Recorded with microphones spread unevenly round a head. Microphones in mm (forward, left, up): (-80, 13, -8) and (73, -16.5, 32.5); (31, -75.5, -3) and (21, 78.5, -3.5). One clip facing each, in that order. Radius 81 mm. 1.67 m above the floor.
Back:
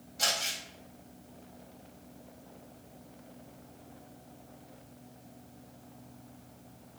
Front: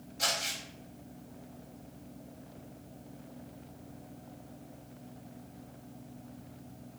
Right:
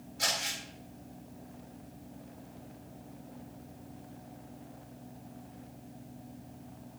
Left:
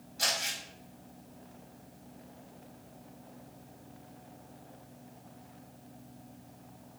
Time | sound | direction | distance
0.2 | crumpling | 125° left | 1.6 m